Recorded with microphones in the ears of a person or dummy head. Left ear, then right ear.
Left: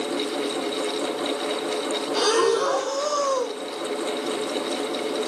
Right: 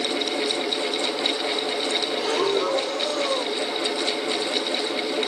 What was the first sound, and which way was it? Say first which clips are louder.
Breathing: left 6 dB; 70° left (ahead or behind).